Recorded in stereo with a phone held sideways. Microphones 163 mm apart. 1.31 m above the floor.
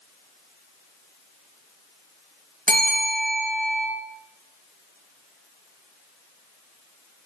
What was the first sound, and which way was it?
A bell, 55° right (ahead or behind).